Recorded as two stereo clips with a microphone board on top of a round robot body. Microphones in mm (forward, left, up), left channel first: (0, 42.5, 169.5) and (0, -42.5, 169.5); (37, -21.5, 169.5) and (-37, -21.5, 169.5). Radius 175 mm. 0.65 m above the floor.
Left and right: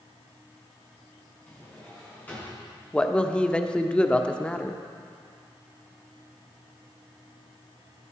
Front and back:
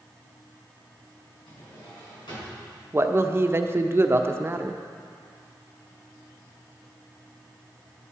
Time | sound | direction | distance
1.5 | a drawer | 20° left | 5.5 m
2.9 | a man speaking | 160° left | 1.1 m